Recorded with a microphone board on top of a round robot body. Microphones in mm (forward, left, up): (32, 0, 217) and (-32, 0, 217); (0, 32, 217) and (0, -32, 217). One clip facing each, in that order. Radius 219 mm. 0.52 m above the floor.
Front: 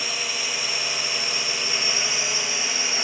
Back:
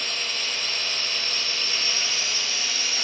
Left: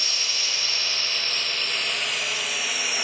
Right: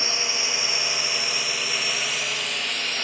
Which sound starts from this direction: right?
A drone, at 0.0 s.